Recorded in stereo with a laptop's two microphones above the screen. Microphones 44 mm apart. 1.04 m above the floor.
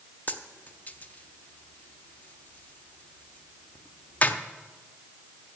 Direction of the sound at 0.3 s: 40° left (ahead or behind).